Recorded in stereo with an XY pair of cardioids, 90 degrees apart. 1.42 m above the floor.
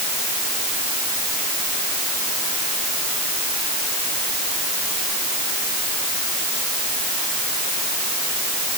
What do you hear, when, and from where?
Only background noise.